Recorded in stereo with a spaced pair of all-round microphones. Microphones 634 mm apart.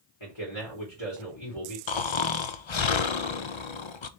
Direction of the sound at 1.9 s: 50° left (ahead or behind).